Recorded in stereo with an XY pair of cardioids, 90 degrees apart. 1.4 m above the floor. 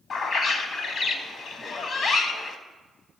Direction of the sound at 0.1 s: 65° left.